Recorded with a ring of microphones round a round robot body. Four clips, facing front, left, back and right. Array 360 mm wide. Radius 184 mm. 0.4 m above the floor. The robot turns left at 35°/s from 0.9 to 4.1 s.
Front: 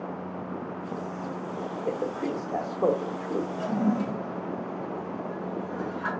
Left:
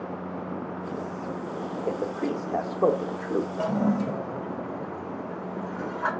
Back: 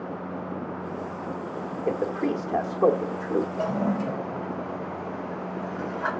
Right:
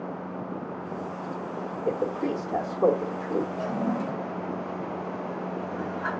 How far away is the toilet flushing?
About 2.0 m.